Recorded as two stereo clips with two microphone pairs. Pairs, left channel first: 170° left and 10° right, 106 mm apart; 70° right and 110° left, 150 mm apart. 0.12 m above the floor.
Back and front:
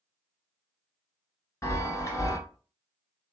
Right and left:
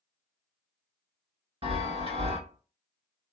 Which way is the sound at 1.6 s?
130° left.